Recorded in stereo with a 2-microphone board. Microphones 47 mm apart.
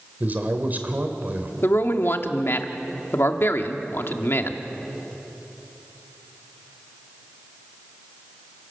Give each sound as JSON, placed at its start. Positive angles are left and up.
{"t": 0.2, "sound": "a man speaking", "side_deg": -40, "distance_m": 2.5}
{"t": 1.6, "sound": "a man speaking", "side_deg": 55, "distance_m": 1.4}